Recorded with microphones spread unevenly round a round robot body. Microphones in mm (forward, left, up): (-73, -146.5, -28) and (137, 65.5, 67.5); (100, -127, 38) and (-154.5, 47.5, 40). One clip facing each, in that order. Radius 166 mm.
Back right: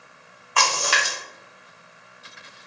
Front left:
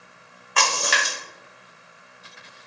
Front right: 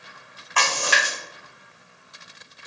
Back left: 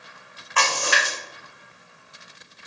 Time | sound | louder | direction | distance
0.6 | a splash | even, back left 1 dB | 20° right | 1.2 m